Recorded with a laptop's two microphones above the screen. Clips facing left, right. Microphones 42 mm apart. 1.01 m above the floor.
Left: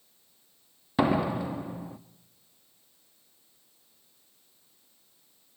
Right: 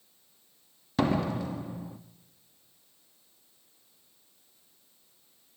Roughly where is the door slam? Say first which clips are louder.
Left 2 dB; centre.